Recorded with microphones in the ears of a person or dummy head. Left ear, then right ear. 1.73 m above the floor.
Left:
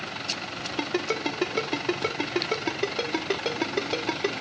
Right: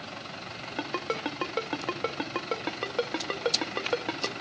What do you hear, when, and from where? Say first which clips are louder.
0.8 s a ringtone: left 3 dB; 20° right (ahead or behind), 0.9 m